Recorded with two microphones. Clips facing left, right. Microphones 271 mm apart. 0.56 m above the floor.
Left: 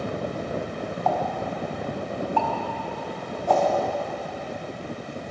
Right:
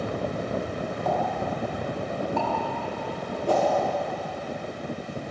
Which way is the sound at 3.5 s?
70° right (ahead or behind).